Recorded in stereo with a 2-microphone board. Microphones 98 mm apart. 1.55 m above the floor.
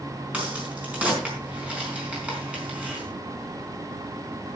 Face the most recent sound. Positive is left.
turn(degrees=-15)  # may be behind; listen again after turning